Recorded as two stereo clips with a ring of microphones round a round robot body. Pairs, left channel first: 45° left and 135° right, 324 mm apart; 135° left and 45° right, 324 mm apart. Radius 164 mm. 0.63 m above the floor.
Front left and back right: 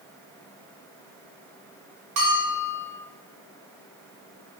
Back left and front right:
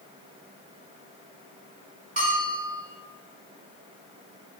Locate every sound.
2.2 s a bell: 110° right, 1.3 m